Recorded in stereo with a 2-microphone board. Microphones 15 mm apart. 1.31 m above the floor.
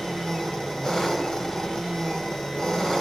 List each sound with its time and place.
0.0 s an engine running: 45° left (ahead or behind), 2.5 m